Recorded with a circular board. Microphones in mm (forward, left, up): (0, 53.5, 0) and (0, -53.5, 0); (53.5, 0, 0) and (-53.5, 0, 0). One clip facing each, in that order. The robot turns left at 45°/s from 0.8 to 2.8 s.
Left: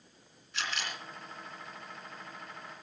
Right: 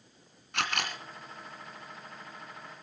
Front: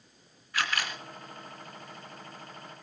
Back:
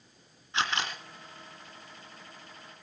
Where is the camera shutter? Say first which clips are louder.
Right 5 dB, back 1 dB; 115° right, 2.5 m; by 1.0 s 125° right, 2.5 m.